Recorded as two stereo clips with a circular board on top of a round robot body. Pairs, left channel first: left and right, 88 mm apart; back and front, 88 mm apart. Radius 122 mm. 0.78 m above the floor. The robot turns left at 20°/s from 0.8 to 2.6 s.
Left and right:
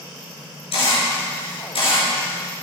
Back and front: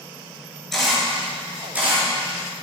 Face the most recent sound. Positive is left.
turn(degrees=55)